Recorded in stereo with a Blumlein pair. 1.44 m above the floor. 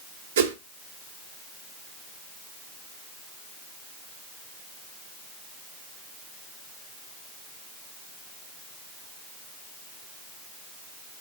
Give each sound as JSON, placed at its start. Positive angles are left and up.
{"t": 0.4, "sound": "a whoosh", "azimuth_deg": -60, "distance_m": 0.6}